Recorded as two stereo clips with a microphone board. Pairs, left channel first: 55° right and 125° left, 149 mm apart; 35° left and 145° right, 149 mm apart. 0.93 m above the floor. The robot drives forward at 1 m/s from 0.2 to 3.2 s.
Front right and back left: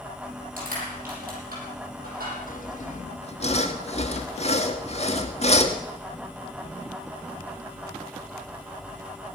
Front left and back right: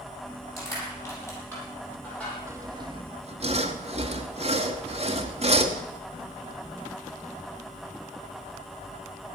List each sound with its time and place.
0.6 s crushing: 105° left, 7.5 m; by 2.4 s 115° left, 8 m
2.5 s sawing: 75° right, 1.5 m; by 5.8 s 100° right, 1.5 m